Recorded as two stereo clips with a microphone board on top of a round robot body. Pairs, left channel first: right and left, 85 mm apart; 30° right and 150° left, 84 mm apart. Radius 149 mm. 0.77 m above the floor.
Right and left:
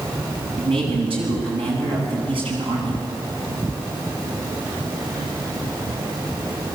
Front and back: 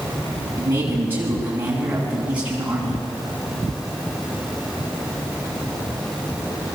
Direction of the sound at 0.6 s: 85° left.